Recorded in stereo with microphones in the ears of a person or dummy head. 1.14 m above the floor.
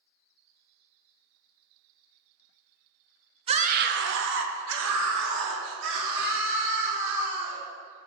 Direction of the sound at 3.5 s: 25° right (ahead or behind).